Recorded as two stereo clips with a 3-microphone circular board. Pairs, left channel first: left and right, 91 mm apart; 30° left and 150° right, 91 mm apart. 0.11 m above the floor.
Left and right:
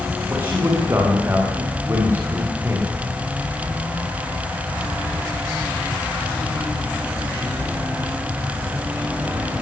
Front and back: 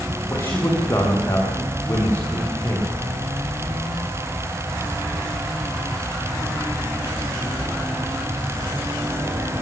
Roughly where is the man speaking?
Ahead right.